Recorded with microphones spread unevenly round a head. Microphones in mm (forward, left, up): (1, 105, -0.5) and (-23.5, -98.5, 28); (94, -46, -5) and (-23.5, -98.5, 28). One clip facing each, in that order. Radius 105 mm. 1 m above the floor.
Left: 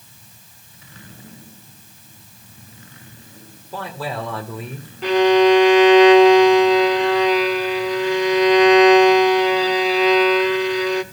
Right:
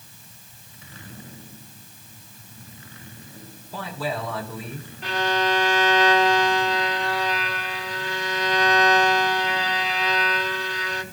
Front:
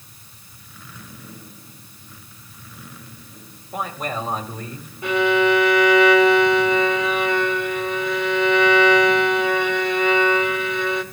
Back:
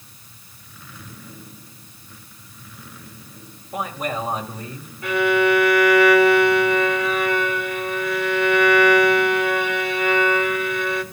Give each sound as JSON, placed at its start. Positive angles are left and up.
{"t": 3.7, "sound": "a man speaking", "azimuth_deg": 115, "distance_m": 4.5}
{"t": 5.0, "sound": "a violin", "azimuth_deg": 110, "distance_m": 0.9}